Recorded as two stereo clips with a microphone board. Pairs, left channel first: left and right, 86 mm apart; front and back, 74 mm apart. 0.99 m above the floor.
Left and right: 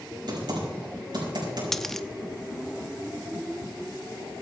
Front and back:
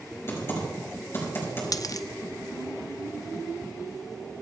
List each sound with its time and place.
0.3 s typing on a keyboard: 55° right, 5 m
1.7 s a dropped coin: 5° left, 0.5 m